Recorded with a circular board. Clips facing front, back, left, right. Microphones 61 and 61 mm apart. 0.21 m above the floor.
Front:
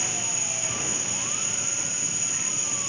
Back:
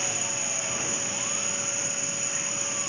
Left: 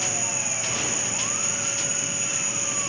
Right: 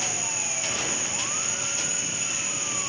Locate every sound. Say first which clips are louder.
0.0 s an insect: back 1 dB, left 2 dB; 135° right, 1.3 m